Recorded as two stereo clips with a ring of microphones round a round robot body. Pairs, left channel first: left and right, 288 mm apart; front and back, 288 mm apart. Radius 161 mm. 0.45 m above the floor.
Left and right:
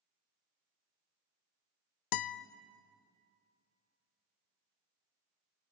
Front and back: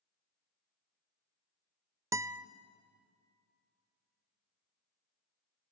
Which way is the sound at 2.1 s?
100° left.